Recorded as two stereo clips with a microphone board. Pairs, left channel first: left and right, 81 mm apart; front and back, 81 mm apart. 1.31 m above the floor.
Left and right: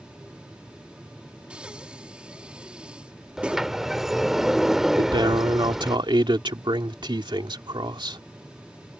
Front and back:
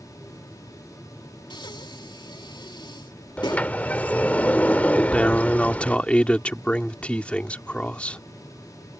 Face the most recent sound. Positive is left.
turn(degrees=-75)